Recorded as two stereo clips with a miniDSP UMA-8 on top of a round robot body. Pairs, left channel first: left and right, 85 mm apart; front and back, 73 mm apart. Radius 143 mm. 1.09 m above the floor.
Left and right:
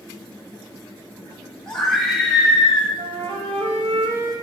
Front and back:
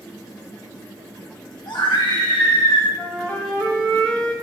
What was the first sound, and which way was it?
A scream, 5° left.